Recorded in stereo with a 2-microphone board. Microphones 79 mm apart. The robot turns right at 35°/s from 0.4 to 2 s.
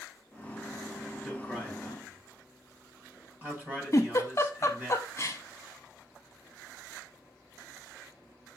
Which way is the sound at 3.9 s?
40° left (ahead or behind).